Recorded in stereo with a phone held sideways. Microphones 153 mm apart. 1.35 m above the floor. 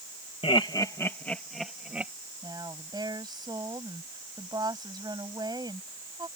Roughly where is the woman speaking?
Right.